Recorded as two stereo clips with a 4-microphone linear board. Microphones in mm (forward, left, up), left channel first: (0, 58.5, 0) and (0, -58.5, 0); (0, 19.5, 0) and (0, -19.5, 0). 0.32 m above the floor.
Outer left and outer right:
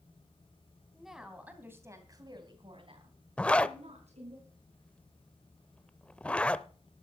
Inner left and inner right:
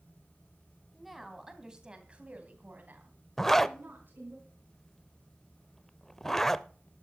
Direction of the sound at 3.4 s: 10° left (ahead or behind).